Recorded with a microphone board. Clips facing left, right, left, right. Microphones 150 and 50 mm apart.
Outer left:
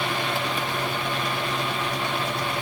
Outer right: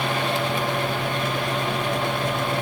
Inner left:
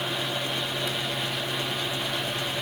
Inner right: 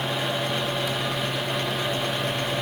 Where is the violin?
No violin in this recording.